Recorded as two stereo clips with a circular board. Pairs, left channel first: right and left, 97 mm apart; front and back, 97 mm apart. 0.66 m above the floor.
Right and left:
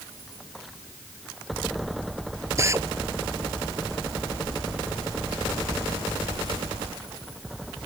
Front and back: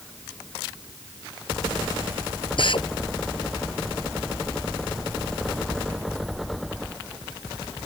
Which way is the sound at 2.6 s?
30° left.